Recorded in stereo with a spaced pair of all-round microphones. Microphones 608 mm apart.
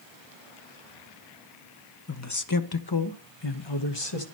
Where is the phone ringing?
I don't hear a phone ringing.